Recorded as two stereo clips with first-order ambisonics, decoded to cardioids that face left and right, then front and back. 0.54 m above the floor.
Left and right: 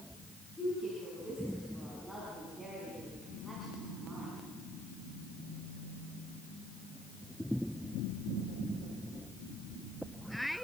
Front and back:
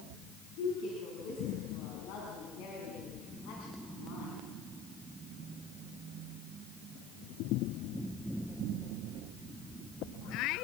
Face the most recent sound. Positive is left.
turn(degrees=-15)